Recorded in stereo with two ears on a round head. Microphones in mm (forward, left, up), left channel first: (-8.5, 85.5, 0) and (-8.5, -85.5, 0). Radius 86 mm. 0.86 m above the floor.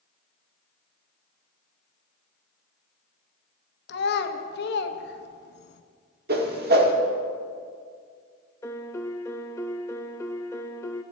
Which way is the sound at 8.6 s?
15° left (ahead or behind).